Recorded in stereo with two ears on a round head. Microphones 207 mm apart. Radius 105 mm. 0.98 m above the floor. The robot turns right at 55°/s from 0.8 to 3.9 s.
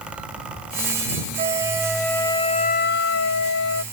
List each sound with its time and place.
1.4 s a flute: 30° right; by 3.8 s 105° left